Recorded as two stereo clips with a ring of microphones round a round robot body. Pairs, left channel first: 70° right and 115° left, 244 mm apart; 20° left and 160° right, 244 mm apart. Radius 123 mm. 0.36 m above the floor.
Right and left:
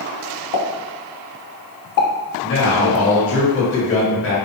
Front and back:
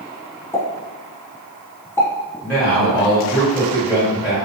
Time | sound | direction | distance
0.5 | a pop | 55° right | 0.6 m
2.4 | a man speaking | 65° right | 1.7 m